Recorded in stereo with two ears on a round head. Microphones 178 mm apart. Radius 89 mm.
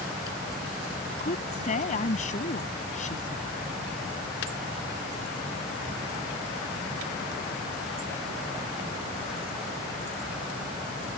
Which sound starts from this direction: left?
A woman speaking, at 1.2 s.